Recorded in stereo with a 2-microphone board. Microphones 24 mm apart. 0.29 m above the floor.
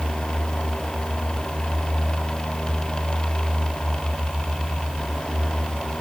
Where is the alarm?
I don't hear an alarm.